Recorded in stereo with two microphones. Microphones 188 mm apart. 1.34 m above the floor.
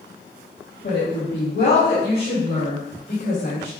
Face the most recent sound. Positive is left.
turn(degrees=85)